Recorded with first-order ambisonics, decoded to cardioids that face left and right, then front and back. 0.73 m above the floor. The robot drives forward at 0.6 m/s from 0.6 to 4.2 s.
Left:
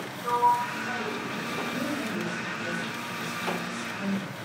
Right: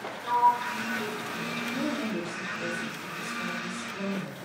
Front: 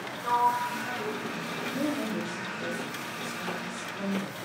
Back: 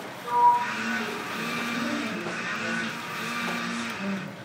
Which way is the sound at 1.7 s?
35° right.